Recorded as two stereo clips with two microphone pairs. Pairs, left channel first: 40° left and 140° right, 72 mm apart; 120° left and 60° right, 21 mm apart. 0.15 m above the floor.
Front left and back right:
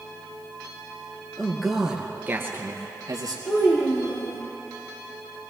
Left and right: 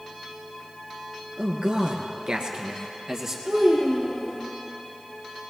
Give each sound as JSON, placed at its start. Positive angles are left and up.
{"t": 1.4, "sound": "a man speaking", "azimuth_deg": -45, "distance_m": 2.5}
{"t": 3.5, "sound": "a child speaking", "azimuth_deg": -5, "distance_m": 3.0}